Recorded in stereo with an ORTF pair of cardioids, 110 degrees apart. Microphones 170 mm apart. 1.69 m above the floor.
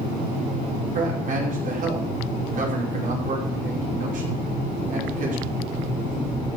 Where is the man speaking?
50° right, 5.5 m.